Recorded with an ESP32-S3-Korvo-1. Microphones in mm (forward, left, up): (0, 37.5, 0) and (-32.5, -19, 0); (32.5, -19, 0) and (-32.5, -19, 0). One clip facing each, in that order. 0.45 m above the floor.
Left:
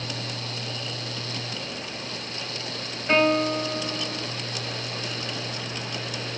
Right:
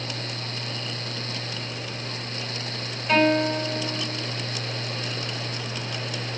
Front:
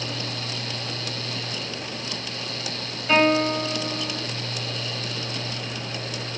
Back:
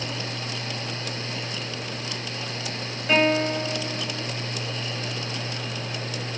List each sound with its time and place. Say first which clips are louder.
3.1 s a guitar: right 1 dB, front 2 dB; 105° left, 1.8 m